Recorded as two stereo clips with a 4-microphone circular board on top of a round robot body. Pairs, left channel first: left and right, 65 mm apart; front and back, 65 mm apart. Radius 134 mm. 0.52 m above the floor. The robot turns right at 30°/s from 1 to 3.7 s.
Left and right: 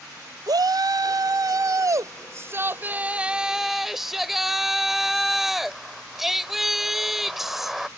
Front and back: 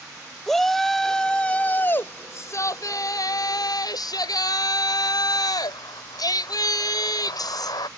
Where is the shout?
85° right; by 7.9 s 5° right.